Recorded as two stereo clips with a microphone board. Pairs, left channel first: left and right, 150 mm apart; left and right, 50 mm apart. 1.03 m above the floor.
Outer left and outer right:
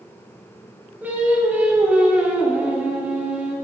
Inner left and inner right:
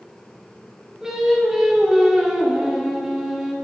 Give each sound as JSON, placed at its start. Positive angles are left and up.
{"t": 1.0, "sound": "singing", "side_deg": -10, "distance_m": 1.0}